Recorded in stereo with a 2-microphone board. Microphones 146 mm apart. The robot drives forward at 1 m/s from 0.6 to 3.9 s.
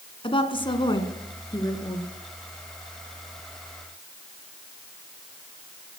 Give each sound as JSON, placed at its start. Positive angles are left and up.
{"t": 0.2, "sound": "a woman speaking", "side_deg": 35, "distance_m": 1.5}